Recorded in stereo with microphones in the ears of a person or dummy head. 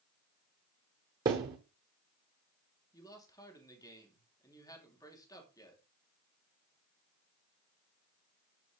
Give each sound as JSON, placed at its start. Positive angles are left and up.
{"t": 1.2, "sound": "a thud", "side_deg": -20, "distance_m": 0.9}
{"t": 2.9, "sound": "a man speaking", "side_deg": 15, "distance_m": 3.0}